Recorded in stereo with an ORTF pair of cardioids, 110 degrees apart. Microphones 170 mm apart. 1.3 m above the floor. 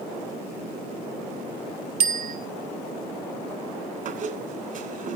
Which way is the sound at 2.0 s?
60° right.